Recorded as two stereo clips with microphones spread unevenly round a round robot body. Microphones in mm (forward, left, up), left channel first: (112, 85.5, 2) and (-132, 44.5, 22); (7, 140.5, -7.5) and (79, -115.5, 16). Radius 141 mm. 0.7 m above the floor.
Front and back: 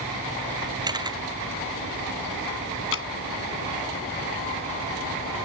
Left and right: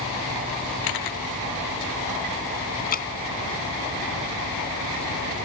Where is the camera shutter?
115° left.